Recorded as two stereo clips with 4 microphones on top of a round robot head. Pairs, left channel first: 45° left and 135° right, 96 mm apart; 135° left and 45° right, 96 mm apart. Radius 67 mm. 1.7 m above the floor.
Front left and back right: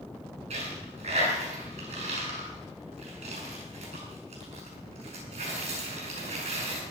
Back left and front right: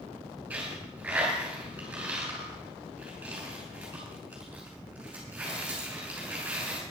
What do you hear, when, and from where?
0.5 s a dropped coin: 125° right, 6 m